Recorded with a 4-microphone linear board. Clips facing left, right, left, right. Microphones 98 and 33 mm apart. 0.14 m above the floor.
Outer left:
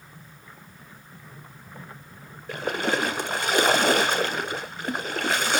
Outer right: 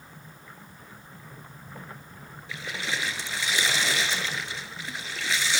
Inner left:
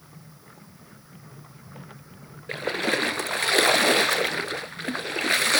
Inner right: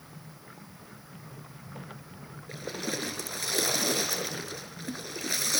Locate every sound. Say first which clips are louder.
2.5 s a splash: outer left 8 dB, inner left 10 dB; 55° left (ahead or behind), 0.8 m